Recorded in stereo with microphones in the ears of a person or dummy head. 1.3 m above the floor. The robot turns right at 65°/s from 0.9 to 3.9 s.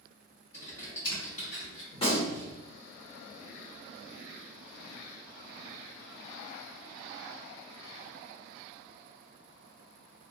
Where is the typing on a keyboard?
15° left, 1.4 m; by 1.8 s 80° left, 1.4 m.